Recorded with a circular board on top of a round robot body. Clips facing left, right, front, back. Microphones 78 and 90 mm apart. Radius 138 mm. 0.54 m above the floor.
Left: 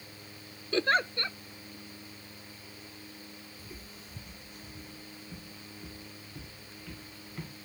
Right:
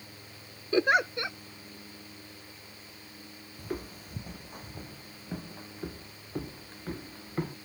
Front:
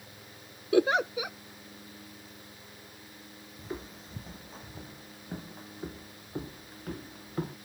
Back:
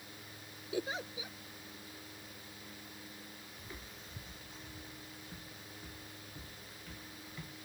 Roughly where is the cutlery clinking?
No cutlery clinking in this recording.